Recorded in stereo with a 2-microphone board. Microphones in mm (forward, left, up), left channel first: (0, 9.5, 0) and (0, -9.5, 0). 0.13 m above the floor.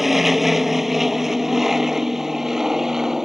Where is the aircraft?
5° right (ahead or behind); by 3.2 s 20° right (ahead or behind).